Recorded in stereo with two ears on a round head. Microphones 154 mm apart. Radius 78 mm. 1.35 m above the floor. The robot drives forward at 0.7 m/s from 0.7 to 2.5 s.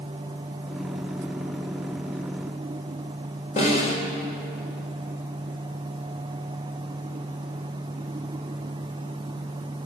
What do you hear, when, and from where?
3.6 s a snare drum: 50° left (ahead or behind), 3.5 m